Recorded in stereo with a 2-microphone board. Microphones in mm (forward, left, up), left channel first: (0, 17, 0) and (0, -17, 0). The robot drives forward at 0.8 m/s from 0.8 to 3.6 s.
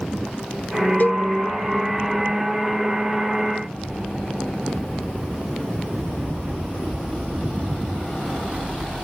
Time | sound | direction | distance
1.0 | a cowbell | 50° left (ahead or behind) | ?